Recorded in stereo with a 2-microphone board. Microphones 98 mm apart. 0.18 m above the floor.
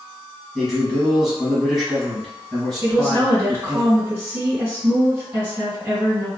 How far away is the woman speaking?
About 1.9 m.